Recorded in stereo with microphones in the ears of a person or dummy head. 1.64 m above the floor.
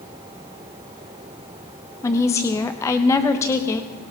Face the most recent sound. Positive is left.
turn(degrees=15)  # may be behind; listen again after turning